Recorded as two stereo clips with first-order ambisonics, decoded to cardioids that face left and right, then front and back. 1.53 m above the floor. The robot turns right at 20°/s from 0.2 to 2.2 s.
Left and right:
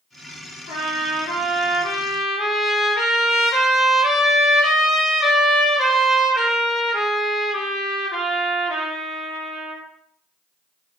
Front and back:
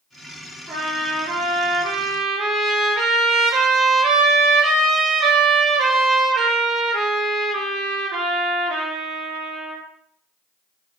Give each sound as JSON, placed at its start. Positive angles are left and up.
{"t": 0.7, "sound": "a trumpet", "azimuth_deg": 115, "distance_m": 2.5}